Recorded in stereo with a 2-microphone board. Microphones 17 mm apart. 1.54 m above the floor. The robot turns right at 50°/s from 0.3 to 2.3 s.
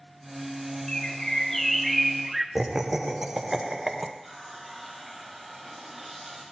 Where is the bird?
125° left, 0.9 m; by 2.5 s 165° right, 0.9 m.